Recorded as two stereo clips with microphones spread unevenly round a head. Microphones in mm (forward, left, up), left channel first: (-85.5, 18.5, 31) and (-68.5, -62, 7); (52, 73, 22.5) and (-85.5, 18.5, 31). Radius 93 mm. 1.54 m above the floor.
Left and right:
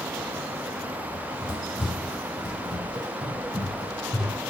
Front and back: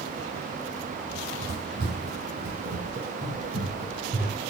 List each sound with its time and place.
1.1 s running footsteps: 165° right, 3 m; by 4.4 s 175° right, 4.5 m